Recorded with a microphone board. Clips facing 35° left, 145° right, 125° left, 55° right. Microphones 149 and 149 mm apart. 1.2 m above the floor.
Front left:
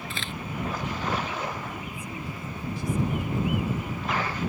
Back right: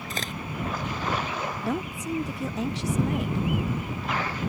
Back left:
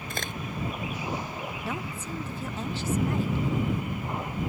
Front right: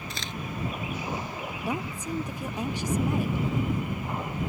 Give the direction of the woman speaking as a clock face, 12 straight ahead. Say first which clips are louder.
Back right 7 dB, front right 3 dB; 4 o'clock.